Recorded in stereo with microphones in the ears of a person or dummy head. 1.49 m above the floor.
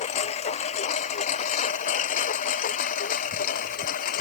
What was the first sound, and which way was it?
A lawn mower, 40° left (ahead or behind).